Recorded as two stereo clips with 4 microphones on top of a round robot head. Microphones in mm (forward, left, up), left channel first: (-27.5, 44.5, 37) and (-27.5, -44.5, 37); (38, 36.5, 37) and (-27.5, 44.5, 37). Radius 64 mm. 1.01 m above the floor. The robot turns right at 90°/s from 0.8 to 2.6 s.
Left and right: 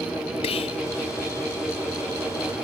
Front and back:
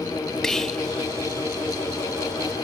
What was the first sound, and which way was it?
Whispering, 75° left.